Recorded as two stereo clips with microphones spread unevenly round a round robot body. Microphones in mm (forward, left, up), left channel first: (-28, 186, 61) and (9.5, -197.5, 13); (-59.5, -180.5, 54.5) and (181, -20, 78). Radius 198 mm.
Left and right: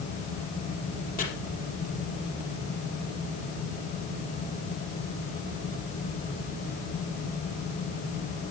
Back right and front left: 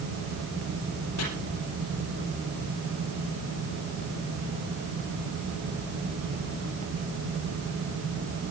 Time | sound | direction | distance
1.2 | chopping | 165° left | 4 m